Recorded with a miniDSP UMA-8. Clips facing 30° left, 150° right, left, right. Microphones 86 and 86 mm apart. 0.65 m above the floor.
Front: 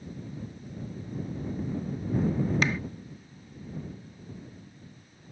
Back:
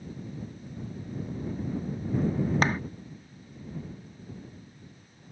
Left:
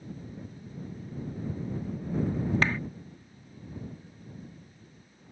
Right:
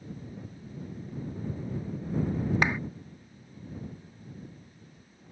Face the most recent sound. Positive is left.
turn(degrees=-155)